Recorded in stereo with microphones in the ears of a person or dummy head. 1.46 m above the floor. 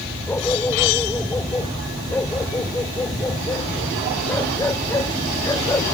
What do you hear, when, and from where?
0.3 s a dog barking: 10° left (ahead or behind)